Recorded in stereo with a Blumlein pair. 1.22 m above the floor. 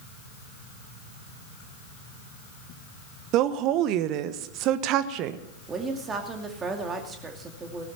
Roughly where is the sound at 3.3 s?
Ahead right.